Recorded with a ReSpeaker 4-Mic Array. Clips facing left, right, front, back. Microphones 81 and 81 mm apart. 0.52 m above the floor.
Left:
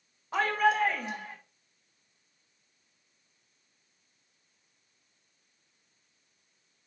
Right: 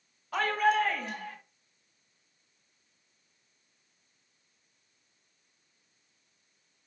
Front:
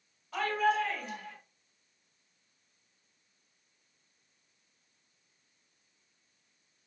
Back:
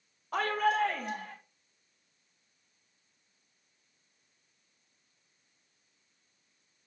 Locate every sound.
0.3 s a shout: 155° left, 2 m; by 1.4 s 150° left, 3.5 m